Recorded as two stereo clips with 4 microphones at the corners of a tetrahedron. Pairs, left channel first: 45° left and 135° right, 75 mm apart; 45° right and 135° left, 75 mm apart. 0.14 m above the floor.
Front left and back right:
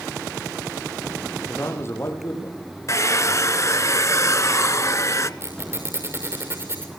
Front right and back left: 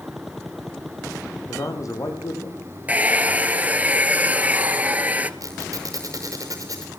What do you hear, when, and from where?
1.5 s a man speaking: 10° right, 5.5 m
2.9 s a hair dryer: 70° left, 1.0 m
5.4 s a squeak: 175° left, 6 m